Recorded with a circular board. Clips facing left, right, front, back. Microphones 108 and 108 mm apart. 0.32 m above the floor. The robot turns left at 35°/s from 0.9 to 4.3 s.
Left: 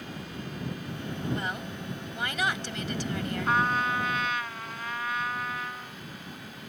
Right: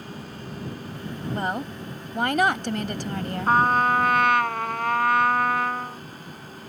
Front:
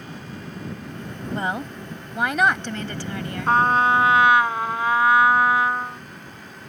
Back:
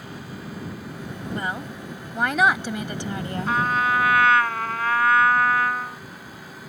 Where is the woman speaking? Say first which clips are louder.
Right 6 dB, front 4 dB; 55° right; by 3.6 s 135° right.